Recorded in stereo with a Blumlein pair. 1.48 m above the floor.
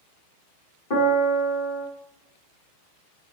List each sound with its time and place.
0.9 s a piano: 50° left, 2.5 m